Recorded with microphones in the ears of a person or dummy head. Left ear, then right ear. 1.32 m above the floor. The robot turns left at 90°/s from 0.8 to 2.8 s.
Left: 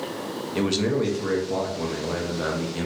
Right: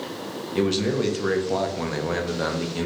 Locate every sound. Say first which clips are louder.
0.6 s a man speaking: right 1 dB; 5° left, 0.5 m; by 2.9 s 175° right, 0.5 m